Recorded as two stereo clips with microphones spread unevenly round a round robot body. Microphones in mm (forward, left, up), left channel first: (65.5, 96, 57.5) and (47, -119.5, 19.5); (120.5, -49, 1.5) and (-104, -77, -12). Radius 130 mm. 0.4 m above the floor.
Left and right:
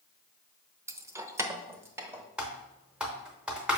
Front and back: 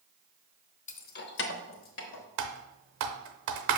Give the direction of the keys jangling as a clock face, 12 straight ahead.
1 o'clock.